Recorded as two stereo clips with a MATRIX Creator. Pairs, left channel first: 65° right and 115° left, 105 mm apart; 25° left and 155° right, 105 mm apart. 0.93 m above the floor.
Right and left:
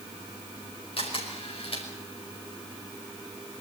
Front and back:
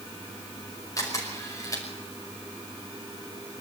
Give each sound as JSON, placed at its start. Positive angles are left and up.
{"t": 1.0, "sound": "a camera shutter", "azimuth_deg": -35, "distance_m": 5.5}